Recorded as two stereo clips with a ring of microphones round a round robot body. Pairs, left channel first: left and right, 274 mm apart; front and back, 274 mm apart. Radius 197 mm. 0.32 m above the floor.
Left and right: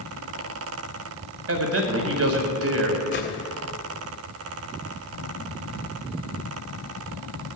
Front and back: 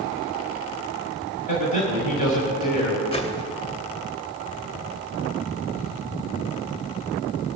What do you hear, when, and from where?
1.5 s a man speaking: 65° right, 1.7 m
3.1 s a whoosh: 60° left, 1.9 m